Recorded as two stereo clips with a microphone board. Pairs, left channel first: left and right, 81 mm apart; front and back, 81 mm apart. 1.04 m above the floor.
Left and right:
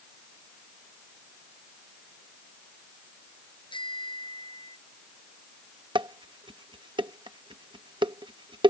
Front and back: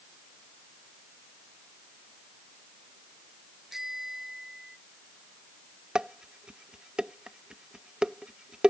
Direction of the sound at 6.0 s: 100° right.